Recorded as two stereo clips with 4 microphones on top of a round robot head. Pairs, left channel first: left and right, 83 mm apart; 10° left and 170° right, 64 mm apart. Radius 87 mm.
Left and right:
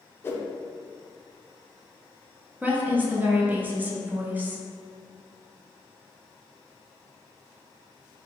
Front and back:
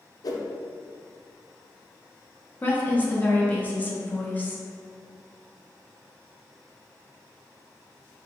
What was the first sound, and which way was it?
A whoosh, 30° left.